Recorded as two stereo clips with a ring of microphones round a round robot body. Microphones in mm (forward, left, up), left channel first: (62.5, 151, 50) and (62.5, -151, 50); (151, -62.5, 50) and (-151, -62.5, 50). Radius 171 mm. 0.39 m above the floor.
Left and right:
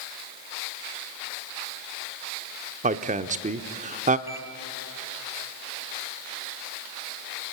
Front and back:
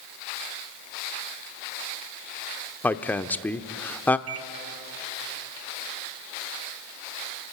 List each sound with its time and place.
2.8 s a woman speaking: 75° right, 0.8 m
4.3 s a microwave: 170° right, 1.1 m